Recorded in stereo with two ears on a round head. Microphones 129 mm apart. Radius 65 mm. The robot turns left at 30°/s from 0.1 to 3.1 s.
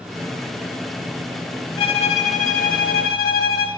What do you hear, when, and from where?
1.8 s a violin: 140° left, 0.9 m; by 3.7 s 100° left, 0.9 m